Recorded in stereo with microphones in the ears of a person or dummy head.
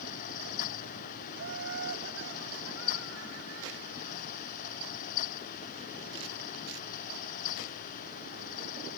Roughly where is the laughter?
Right.